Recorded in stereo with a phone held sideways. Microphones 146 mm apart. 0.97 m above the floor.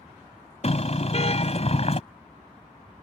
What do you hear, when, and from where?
0.6 s a car horn: 45° left (ahead or behind)